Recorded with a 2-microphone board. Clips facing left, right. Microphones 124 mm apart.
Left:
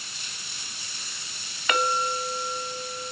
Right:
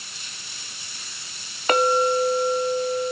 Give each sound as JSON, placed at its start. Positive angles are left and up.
{"t": 1.7, "sound": "a clink", "side_deg": -35, "distance_m": 0.8}